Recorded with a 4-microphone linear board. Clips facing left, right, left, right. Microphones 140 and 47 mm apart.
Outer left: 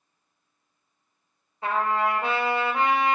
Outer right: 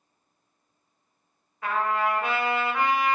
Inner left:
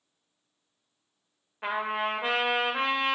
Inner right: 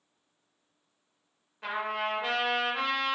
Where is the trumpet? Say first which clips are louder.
Outer left 1 dB, inner left 2 dB; 30° left (ahead or behind), 0.6 m.